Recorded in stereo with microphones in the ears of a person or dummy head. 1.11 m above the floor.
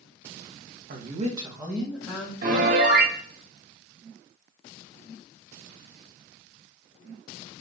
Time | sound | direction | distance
0.9 | a woman speaking | 50° right (ahead or behind) | 1.0 m
2.4 | a piano | 50° right (ahead or behind) | 0.9 m